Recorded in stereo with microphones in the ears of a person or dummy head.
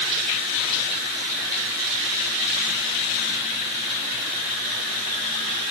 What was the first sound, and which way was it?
Only background noise.